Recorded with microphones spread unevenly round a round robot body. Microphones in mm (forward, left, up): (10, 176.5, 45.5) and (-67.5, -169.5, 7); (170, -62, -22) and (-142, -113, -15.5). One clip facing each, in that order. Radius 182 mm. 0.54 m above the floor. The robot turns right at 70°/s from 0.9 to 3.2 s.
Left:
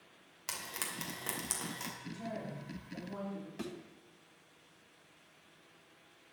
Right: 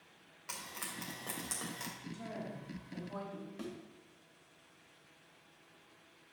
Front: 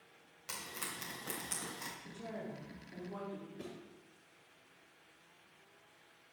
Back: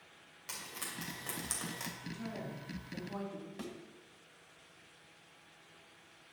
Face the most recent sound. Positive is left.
turn(degrees=155)